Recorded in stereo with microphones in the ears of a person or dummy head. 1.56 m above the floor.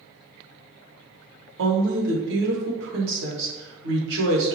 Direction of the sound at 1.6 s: 60° right (ahead or behind).